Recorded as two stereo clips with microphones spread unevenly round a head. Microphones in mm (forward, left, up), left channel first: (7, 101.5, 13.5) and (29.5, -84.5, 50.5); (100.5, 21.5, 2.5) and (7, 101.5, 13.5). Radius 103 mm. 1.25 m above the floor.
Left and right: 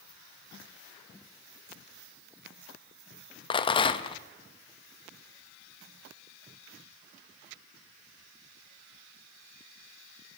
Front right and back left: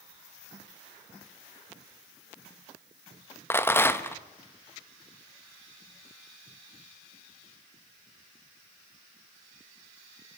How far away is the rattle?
About 1.4 m.